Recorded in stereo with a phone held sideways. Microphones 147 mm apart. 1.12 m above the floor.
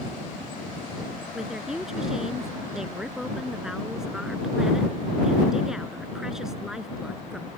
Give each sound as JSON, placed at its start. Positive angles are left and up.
{"t": 1.3, "sound": "a woman speaking", "side_deg": -5}